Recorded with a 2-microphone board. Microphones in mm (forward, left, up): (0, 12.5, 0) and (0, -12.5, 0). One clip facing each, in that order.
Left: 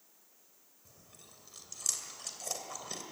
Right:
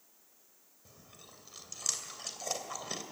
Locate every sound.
0.8 s chewing: 20° right (ahead or behind), 2.5 m